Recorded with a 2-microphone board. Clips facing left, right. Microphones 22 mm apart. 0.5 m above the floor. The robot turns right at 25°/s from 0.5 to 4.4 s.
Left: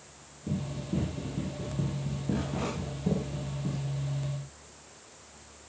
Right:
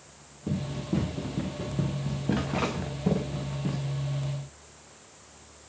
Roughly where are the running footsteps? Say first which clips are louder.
Right 3 dB; right.